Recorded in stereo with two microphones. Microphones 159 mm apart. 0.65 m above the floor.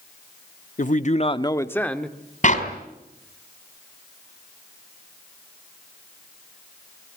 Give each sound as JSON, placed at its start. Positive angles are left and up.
{"t": 0.8, "sound": "a man speaking", "side_deg": 55, "distance_m": 0.9}
{"t": 2.4, "sound": "a clap", "side_deg": 55, "distance_m": 3.5}